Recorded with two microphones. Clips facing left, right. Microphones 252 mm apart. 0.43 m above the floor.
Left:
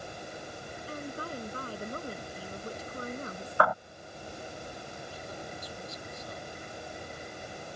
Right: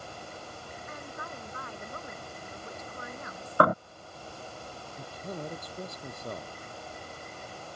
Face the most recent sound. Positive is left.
turn(degrees=-60)  # may be behind; listen again after turning